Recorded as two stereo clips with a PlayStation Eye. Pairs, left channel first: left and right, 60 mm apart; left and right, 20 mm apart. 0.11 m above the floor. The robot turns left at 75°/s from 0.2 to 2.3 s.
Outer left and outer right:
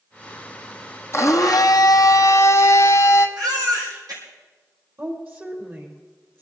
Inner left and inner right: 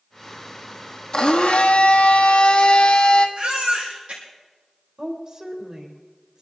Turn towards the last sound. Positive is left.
turn(degrees=-35)  # may be behind; listen again after turning